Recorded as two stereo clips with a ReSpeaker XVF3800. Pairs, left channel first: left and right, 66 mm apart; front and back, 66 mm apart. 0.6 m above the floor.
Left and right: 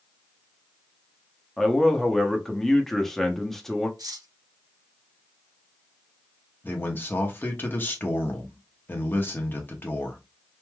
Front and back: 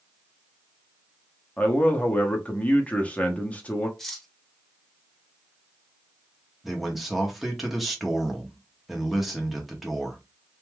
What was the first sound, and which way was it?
A man speaking, 10° left.